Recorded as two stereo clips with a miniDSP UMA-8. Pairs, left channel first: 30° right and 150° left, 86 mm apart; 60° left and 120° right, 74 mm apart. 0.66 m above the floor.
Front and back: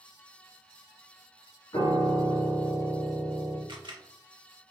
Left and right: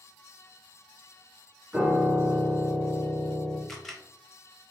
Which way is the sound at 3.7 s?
145° left.